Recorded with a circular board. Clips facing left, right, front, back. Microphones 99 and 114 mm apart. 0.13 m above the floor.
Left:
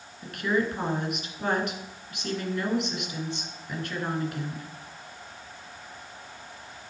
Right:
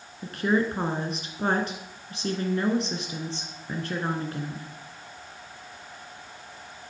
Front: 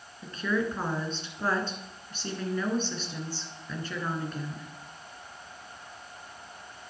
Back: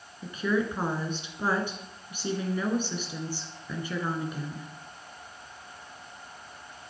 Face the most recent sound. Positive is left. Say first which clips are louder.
# right 2 dB, back 2 dB
turn(degrees=-110)